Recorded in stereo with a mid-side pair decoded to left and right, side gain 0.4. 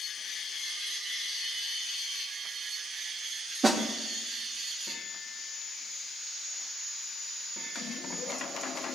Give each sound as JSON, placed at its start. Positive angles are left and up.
{"t": 3.6, "sound": "a snare drum", "azimuth_deg": -35, "distance_m": 2.5}